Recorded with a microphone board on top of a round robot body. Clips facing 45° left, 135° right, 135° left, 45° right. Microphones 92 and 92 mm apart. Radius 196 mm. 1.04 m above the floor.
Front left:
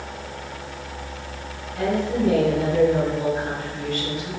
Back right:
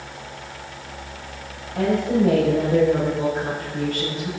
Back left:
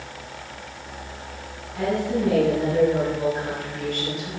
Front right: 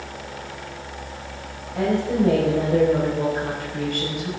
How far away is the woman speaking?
About 5.5 m.